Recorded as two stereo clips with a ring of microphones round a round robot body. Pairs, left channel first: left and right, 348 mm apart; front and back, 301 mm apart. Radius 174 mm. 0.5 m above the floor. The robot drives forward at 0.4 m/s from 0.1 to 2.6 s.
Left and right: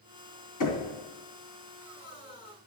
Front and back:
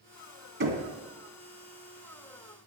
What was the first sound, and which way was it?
Knocking, 125° left.